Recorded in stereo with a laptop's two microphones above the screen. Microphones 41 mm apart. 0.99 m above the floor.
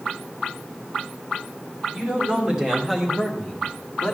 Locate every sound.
1.9 s a man speaking: 20° right (ahead or behind), 2.5 m; by 4.2 s 30° left (ahead or behind), 1.8 m